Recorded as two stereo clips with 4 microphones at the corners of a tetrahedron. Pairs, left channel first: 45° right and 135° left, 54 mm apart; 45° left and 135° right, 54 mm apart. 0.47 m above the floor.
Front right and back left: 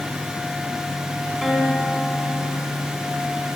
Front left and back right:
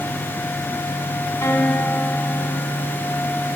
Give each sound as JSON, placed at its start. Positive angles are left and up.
{"t": 1.4, "sound": "a guitar", "azimuth_deg": 50, "distance_m": 1.7}